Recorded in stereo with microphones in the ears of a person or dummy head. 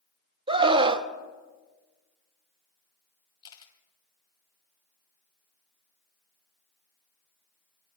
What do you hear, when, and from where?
0.5 s a scream: 30° right (ahead or behind), 1.3 m
3.4 s a camera shutter: 25° left (ahead or behind), 2.5 m